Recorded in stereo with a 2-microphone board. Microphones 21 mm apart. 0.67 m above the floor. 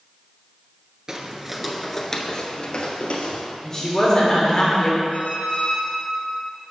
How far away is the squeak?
About 1.5 m.